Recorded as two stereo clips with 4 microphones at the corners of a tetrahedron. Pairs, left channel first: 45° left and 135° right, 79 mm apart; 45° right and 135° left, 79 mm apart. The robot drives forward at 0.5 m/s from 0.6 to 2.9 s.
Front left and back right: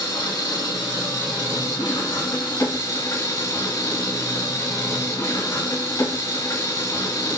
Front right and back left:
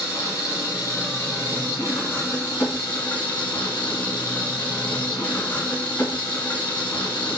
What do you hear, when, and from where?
0.0 s an engine running: 10° left, 2.5 m; by 7.4 s 20° left, 1.5 m